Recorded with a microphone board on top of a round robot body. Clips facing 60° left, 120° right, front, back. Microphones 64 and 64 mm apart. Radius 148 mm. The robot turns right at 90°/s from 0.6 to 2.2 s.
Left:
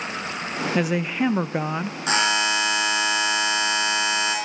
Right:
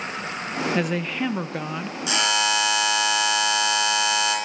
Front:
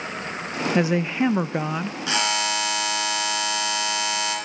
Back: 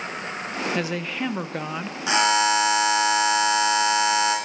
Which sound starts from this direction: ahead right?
A woman speaking, at 0.8 s.